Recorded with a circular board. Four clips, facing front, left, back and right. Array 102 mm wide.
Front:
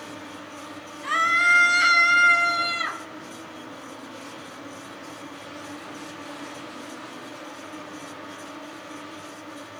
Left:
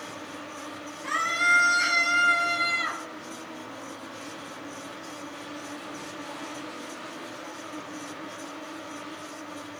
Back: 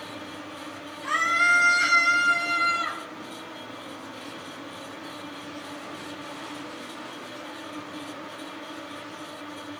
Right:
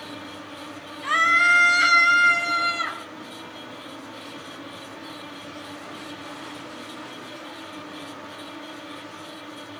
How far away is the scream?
About 1.3 m.